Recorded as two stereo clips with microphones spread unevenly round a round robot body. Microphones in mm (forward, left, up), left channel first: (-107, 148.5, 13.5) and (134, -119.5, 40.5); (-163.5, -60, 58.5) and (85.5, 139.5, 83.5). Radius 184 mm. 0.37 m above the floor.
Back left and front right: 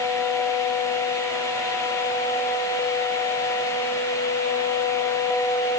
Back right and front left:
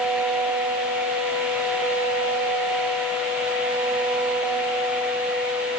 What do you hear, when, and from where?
Only background noise.